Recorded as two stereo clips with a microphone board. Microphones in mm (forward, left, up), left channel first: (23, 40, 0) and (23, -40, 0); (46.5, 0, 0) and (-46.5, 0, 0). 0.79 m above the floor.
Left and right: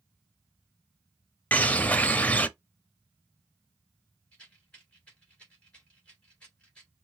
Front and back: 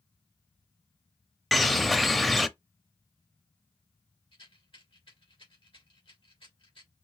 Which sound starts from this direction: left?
A bird, at 1.5 s.